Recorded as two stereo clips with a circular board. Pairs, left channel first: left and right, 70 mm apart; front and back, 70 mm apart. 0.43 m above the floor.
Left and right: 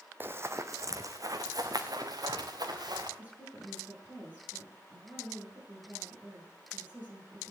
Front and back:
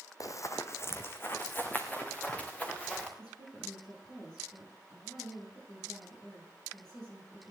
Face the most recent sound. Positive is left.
turn(degrees=-20)